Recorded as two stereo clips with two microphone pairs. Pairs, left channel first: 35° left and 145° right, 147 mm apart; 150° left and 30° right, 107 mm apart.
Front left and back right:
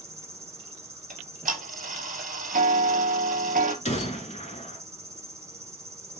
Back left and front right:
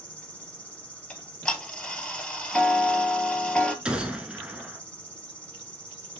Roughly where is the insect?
Behind.